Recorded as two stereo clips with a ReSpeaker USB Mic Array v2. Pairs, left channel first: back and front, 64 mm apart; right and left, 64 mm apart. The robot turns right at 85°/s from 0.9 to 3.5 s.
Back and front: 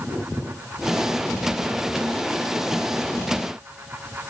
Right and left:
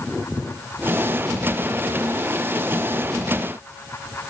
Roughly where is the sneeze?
I don't hear a sneeze.